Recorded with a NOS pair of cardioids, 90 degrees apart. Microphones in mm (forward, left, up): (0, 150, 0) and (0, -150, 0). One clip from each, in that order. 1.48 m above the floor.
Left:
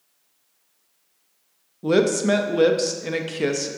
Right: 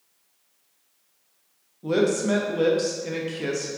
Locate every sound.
1.8 s a woman speaking: 30° left, 0.5 m